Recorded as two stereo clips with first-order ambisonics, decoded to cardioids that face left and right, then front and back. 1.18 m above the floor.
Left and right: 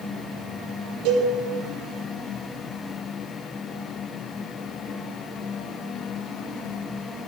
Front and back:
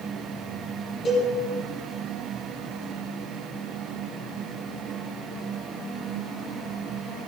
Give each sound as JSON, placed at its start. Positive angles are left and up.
{"t": 1.1, "sound": "a cowbell", "azimuth_deg": -70, "distance_m": 8.5}